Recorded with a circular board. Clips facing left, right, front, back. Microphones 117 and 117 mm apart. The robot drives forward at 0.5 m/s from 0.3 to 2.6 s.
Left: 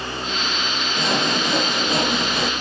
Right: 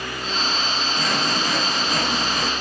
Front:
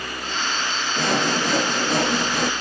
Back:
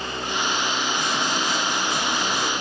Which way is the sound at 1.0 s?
25° left.